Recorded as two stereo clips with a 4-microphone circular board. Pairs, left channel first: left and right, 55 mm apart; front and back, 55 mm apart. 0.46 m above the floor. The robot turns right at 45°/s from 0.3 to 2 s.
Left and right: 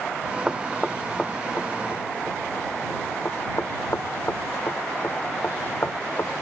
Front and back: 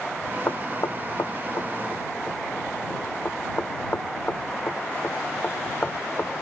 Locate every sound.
0.5 s knocking: 15° right; by 6.3 s 55° left